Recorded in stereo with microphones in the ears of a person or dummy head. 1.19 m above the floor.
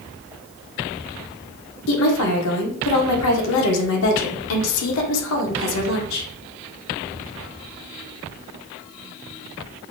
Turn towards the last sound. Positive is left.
turn(degrees=80)